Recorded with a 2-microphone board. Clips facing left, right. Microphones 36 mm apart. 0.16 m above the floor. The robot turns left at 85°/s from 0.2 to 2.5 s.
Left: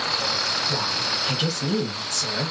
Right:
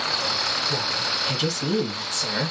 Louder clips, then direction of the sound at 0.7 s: Even; 85° left.